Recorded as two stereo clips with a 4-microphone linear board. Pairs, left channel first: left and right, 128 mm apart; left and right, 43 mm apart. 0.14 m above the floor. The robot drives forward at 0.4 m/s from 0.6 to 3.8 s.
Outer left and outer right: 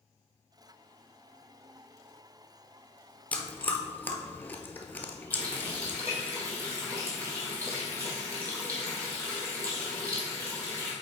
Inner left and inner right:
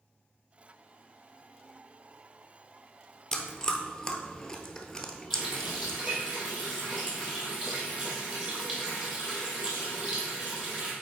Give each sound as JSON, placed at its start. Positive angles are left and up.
{"t": 3.3, "sound": "chewing", "side_deg": 15, "distance_m": 1.0}
{"t": 5.3, "sound": "a running tap", "side_deg": -30, "distance_m": 3.0}